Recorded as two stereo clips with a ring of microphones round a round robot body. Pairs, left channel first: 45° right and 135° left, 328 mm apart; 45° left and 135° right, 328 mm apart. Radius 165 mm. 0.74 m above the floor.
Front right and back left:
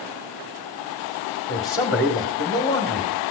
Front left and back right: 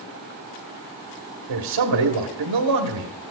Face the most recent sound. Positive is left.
turn(degrees=-135)